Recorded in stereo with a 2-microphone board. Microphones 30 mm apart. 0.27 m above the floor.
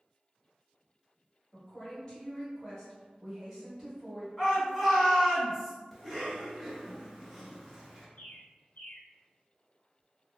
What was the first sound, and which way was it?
A woman speaking, 35° left (ahead or behind).